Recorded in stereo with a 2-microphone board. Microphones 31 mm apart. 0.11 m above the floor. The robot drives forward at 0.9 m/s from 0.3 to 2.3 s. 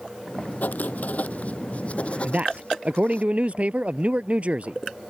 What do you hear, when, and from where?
0.6 s writing: 65° left (ahead or behind); by 3.2 s 40° left (ahead or behind)
2.2 s a man speaking: 50° right (ahead or behind)